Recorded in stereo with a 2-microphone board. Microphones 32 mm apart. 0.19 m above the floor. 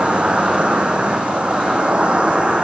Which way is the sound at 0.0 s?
40° right (ahead or behind).